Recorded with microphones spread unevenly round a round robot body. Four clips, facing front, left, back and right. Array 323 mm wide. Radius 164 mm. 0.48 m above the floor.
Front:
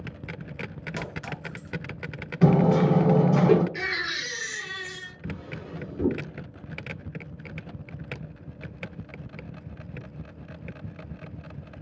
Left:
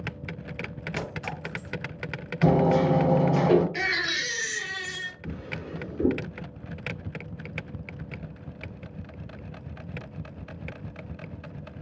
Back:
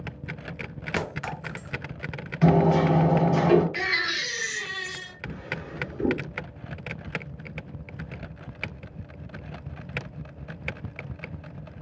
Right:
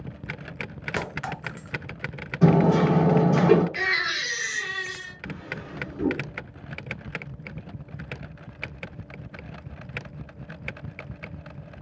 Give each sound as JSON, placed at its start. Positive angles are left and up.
{"t": 1.0, "sound": "a clink", "azimuth_deg": -140, "distance_m": 0.6}
{"t": 2.4, "sound": "hammering", "azimuth_deg": -45, "distance_m": 1.0}
{"t": 3.8, "sound": "a baby crying", "azimuth_deg": 95, "distance_m": 1.0}
{"t": 5.2, "sound": "a drawer", "azimuth_deg": -10, "distance_m": 1.3}